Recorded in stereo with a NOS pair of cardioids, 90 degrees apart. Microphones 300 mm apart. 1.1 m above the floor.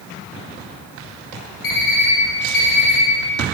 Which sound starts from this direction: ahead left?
An alarm clock, at 1.6 s.